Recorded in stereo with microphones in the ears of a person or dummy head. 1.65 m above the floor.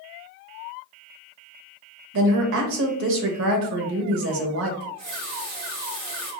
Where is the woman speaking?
70° right (ahead or behind), 0.8 m.